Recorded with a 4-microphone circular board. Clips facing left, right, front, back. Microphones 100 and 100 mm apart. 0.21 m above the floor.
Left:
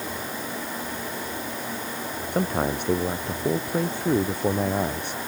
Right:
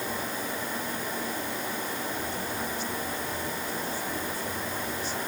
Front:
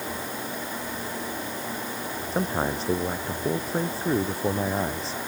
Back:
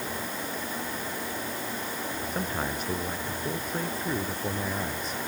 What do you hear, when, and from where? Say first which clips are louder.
2.3 s a man speaking: left 8 dB, front 7 dB; 60° left